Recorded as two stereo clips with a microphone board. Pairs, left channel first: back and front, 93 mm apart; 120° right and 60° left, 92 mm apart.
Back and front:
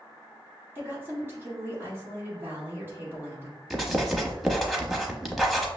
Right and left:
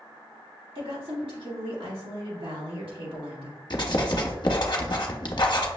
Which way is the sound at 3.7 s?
90° right.